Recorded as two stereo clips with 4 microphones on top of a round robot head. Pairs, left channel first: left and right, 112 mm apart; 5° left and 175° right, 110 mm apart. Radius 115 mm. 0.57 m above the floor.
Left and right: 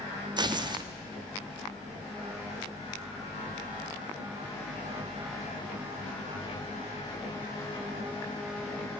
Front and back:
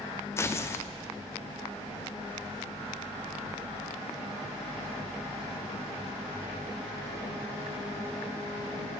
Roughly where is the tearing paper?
Ahead right.